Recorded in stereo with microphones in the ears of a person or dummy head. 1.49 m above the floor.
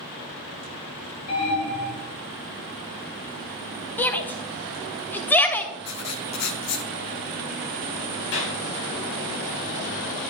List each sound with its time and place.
1.3 s an alarm: 55° left (ahead or behind), 5.5 m
4.0 s a shout: 10° left (ahead or behind), 1.0 m
5.8 s writing: 75° left (ahead or behind), 1.0 m
8.3 s a clap: 65° left (ahead or behind), 4.5 m